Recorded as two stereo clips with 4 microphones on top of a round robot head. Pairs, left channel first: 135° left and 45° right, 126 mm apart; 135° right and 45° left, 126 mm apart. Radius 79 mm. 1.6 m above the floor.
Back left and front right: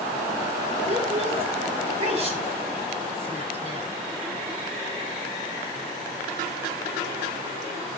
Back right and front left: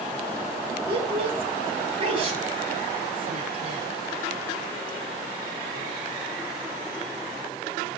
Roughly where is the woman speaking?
Ahead.